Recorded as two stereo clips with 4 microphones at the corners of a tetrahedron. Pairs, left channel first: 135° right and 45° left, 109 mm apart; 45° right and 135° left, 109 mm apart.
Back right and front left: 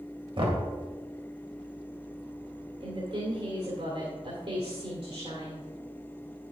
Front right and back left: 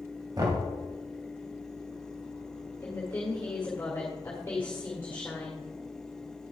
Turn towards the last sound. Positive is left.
turn(degrees=20)